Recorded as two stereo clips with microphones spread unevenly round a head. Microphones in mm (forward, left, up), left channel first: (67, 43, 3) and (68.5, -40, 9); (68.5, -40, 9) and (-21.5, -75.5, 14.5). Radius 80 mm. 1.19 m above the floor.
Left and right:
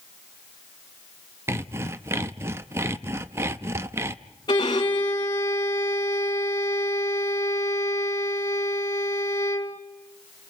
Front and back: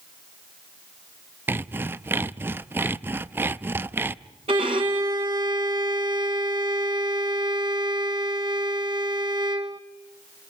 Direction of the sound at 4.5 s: 150° left.